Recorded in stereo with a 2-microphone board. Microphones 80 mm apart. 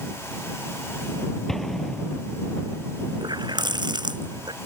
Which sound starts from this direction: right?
A running tap, at 3.2 s.